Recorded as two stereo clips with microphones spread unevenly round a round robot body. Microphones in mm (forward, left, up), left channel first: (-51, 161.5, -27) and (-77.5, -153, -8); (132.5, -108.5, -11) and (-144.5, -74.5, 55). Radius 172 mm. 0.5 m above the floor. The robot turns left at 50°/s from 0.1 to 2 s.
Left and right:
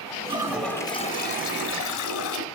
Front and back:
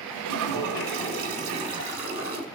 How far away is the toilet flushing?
About 1.6 m.